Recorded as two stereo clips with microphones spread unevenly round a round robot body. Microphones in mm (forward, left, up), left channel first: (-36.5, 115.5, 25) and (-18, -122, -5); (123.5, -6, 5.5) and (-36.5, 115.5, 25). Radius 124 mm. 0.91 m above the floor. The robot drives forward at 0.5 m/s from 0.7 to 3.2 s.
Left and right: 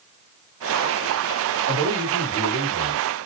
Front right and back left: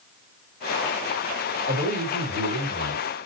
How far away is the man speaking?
About 1.5 m.